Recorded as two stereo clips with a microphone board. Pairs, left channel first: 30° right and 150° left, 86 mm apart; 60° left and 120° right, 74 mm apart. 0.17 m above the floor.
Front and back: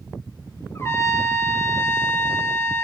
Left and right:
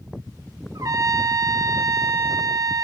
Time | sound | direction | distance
0.8 | a trumpet | 90° right | 0.5 m